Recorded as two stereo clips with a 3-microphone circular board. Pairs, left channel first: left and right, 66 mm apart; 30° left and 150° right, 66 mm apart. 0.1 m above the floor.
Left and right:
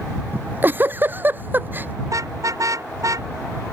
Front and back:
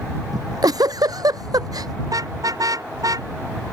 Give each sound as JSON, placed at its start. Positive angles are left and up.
{"t": 0.3, "sound": "a giggle", "azimuth_deg": -150}
{"t": 2.0, "sound": "a car horn", "azimuth_deg": -125}